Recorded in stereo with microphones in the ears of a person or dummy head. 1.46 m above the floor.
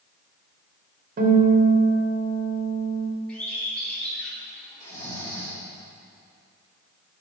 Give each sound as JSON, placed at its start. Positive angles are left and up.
{"t": 1.2, "sound": "a guitar", "side_deg": -55, "distance_m": 3.5}
{"t": 3.3, "sound": "a bird", "side_deg": 10, "distance_m": 4.5}
{"t": 4.8, "sound": "snoring", "side_deg": 15, "distance_m": 4.0}